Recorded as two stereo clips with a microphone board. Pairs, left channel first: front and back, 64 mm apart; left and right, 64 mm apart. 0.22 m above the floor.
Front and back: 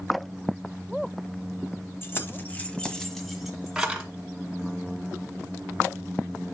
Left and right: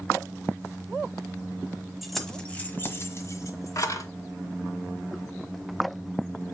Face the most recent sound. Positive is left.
turn(degrees=105)